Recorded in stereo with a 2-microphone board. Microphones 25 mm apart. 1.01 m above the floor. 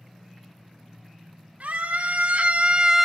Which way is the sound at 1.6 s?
70° right (ahead or behind).